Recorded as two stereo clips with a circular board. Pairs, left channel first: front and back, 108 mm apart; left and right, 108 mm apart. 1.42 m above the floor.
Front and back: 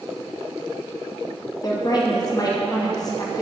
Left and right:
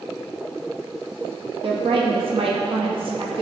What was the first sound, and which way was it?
A woman speaking, 55° right.